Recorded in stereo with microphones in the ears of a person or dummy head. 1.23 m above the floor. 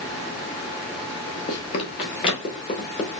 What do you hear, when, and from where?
1.5 s running footsteps: 30° left (ahead or behind), 1.4 m; by 3.1 s 35° left (ahead or behind), 2.0 m